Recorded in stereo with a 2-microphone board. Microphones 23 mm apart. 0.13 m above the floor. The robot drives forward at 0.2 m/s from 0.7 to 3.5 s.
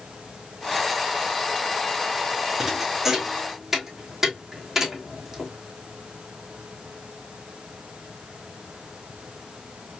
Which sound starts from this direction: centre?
A thud, at 2.6 s.